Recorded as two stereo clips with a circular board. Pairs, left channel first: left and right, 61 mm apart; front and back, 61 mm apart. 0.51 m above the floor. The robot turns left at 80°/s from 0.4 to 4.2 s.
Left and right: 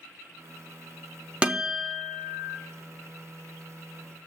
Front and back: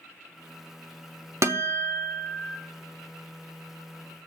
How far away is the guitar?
About 0.9 m.